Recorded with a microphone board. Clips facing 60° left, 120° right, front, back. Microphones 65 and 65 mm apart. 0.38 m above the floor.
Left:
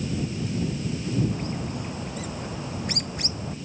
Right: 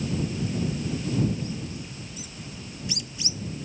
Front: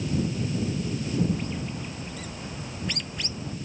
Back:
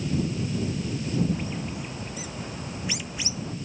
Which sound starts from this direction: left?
A bird, at 1.3 s.